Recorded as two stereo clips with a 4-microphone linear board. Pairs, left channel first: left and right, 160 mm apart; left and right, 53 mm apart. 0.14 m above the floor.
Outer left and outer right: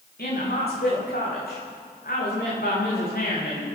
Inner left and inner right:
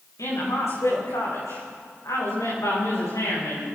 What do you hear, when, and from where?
0.2 s a woman speaking: 75° left (ahead or behind), 10 m